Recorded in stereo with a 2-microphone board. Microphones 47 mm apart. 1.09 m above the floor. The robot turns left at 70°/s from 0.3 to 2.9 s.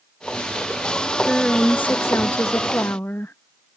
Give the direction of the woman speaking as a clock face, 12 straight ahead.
6 o'clock.